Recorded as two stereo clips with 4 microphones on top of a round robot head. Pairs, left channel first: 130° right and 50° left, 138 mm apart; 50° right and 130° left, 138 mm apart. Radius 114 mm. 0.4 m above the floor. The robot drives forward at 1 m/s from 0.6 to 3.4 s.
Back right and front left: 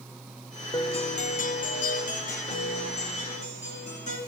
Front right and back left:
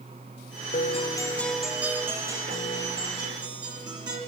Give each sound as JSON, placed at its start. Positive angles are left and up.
{"t": 0.7, "sound": "a guitar", "azimuth_deg": -70, "distance_m": 0.7}